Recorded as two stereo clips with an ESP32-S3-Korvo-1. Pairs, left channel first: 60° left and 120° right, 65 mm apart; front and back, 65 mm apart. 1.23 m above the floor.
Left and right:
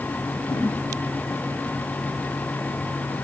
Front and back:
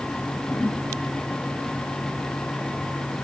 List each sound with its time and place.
0.5 s a whoosh: 75° left, 3 m